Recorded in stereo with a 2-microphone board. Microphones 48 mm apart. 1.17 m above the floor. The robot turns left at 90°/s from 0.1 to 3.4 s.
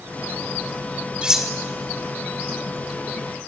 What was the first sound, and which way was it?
Cutlery clinking, 20° right (ahead or behind).